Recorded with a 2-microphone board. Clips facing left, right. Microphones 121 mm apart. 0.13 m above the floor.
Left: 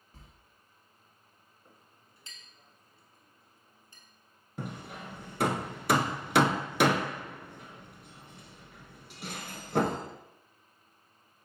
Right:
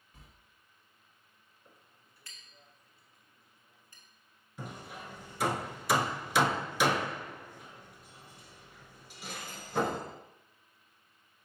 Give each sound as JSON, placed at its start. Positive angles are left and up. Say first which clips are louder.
{"t": 0.1, "sound": "a sliding door", "louder": "left 2 dB", "side_deg": 35, "distance_m": 1.5}
{"t": 1.6, "sound": "a clink", "louder": "left 1 dB", "side_deg": 20, "distance_m": 1.0}
{"t": 4.6, "sound": "hammering", "louder": "left 3 dB", "side_deg": 55, "distance_m": 0.6}